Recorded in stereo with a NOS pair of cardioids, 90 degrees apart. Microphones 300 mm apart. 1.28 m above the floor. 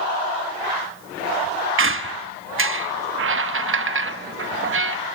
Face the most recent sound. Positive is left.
turn(degrees=-45)